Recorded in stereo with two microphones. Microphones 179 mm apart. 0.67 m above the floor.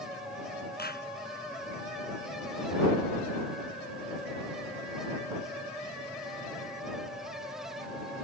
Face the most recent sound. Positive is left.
turn(degrees=65)  # may be behind; listen again after turning